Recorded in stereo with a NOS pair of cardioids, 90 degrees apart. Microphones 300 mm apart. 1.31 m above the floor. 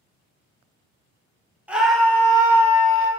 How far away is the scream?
About 1.4 m.